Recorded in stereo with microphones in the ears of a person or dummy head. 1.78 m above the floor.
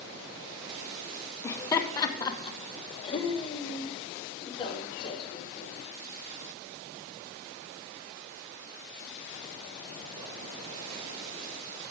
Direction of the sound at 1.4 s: 15° left (ahead or behind).